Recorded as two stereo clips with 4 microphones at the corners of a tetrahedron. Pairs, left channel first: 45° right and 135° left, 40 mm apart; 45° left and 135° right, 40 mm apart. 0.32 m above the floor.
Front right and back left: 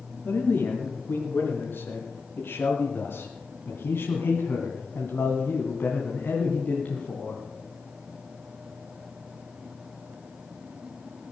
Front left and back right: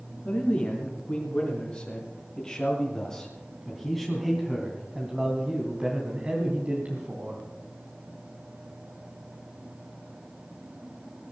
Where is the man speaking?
10° right, 4 m; by 7.4 s 100° right, 2.5 m.